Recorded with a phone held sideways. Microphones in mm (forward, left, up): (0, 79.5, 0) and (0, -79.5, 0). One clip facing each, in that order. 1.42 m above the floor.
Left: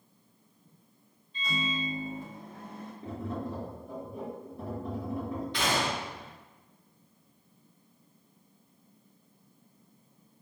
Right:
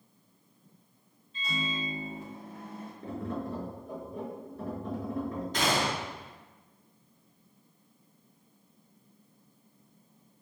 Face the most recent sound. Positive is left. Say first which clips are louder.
# right 2 dB
turn(degrees=-45)  # may be behind; listen again after turning